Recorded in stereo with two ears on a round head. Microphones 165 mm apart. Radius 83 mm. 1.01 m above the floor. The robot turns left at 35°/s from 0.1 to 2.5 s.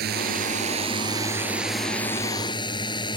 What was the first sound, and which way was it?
A drone, 120° right.